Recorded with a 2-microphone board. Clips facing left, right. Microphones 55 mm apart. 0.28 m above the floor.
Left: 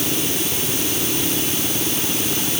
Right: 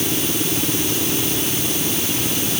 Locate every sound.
Only background noise.